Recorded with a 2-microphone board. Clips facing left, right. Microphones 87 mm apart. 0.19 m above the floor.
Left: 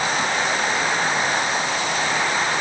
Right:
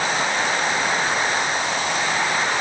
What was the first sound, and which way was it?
Only background noise.